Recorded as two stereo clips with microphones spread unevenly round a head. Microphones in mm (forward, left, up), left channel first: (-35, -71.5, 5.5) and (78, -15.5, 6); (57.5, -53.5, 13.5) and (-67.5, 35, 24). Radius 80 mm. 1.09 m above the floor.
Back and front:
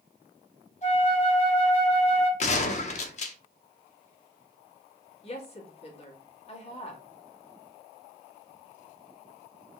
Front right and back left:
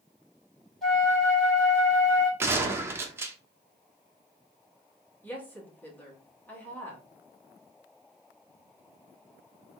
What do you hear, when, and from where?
0.8 s a flute: 125° right, 2.5 m
2.4 s a gunshot: 145° right, 0.8 m
5.2 s a woman speaking: 115° right, 2 m